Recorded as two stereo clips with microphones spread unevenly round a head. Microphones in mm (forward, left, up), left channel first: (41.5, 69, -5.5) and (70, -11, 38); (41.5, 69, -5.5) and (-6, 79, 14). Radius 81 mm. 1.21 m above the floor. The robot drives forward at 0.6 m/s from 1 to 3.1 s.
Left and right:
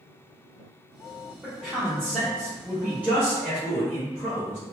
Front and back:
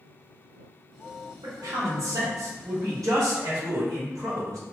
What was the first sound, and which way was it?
A man speaking, 165° right.